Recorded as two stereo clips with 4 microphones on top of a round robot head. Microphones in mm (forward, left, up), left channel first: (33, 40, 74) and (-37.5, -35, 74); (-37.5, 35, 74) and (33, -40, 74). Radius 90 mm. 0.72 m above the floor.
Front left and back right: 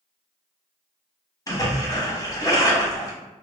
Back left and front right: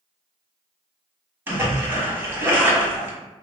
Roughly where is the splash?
Ahead.